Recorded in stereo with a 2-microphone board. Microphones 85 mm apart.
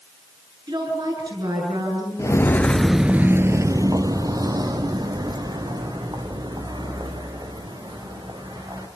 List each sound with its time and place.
0.7 s a woman speaking: 60° right (ahead or behind), 9 m
2.2 s footsteps: 35° left (ahead or behind), 0.9 m; by 8.9 s 55° right (ahead or behind), 5.5 m